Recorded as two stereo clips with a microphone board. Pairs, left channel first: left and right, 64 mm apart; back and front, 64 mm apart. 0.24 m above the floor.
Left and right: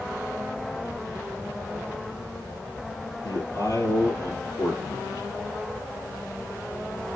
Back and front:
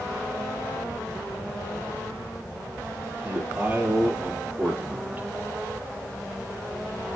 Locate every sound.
3.2 s a man speaking: 65° left, 5.5 m